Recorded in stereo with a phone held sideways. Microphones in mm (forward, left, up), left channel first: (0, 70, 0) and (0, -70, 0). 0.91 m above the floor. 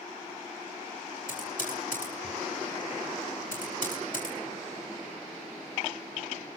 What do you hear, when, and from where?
1.3 s typing on a keyboard: 75° left (ahead or behind), 6.5 m